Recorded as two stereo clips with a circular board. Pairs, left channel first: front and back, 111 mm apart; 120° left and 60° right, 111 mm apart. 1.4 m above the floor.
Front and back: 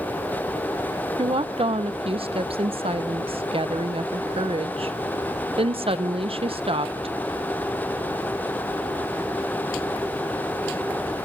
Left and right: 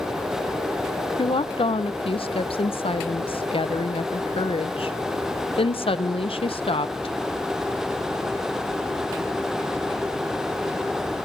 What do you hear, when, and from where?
1.2 s a woman speaking: 150° left, 0.7 m